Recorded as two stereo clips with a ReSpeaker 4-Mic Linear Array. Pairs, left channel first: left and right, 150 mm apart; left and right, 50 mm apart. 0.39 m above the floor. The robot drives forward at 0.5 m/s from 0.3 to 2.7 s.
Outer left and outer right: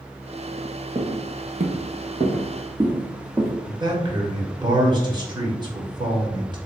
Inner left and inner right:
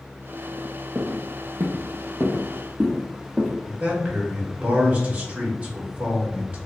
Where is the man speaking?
30° right (ahead or behind), 1.0 m.